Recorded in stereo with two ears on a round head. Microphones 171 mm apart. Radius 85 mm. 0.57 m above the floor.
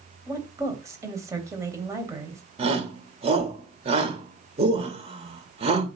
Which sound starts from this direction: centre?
A woman speaking, at 0.3 s.